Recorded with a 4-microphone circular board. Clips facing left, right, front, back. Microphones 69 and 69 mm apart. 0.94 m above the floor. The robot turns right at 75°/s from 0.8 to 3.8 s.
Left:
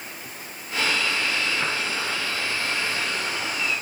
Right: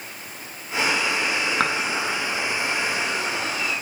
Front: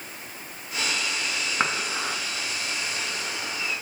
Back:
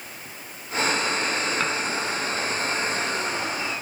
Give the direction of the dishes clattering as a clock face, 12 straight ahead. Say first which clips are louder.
Right 4 dB, back 1 dB; 2 o'clock.